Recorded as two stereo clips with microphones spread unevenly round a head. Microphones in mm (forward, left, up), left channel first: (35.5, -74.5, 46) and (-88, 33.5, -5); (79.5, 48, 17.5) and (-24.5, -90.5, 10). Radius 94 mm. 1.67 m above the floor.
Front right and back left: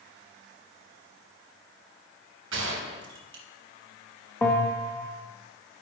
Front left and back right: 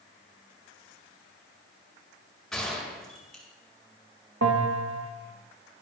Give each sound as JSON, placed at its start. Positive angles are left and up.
{"t": 2.5, "sound": "a gunshot", "azimuth_deg": 140, "distance_m": 3.0}
{"t": 4.4, "sound": "a bell", "azimuth_deg": -115, "distance_m": 2.5}